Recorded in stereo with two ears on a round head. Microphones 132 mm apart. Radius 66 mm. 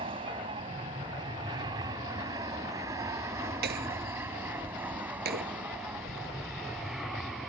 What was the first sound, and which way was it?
An aircraft, 35° right (ahead or behind).